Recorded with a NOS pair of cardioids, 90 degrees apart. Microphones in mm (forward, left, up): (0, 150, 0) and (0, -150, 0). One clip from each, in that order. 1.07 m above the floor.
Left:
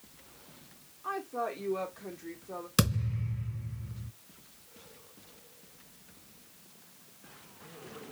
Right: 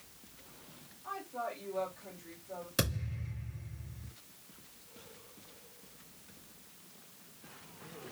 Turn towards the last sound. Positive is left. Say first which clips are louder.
# left 4 dB
turn(degrees=60)